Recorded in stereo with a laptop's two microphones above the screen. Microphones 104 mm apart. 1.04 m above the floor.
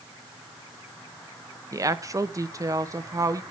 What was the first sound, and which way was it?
A woman speaking, 35° right (ahead or behind).